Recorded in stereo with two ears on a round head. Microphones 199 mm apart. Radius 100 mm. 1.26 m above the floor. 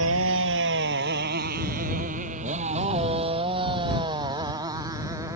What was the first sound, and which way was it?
A motorcycle, 65° right (ahead or behind).